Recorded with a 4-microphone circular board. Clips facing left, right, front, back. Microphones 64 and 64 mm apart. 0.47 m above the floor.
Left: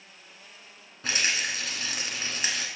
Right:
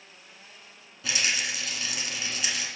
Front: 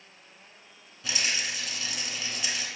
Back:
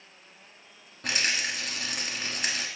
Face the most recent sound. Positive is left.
turn(degrees=140)